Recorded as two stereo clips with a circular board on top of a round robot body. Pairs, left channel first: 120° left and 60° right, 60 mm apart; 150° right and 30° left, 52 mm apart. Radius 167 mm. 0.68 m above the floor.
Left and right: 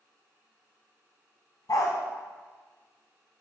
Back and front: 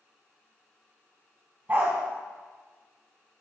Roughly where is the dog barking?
Left.